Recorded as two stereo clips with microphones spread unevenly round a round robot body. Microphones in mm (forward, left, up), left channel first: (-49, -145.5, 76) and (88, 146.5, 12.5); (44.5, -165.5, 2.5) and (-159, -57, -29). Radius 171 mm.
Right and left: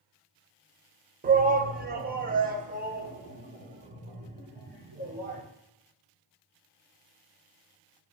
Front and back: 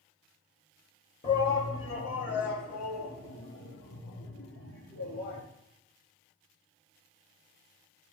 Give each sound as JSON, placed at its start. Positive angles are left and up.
{"t": 1.2, "sound": "a shout", "azimuth_deg": 35, "distance_m": 1.5}